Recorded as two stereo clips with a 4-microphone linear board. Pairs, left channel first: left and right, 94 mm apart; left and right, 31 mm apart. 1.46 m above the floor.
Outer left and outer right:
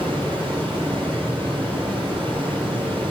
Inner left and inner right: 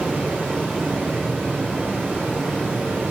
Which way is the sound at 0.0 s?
85° right.